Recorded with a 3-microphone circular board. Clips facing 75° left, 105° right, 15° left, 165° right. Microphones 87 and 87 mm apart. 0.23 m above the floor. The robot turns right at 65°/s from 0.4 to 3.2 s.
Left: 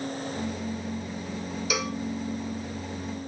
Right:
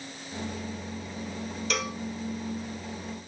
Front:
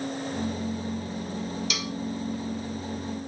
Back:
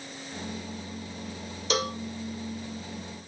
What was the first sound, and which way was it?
A cowbell, 155° left.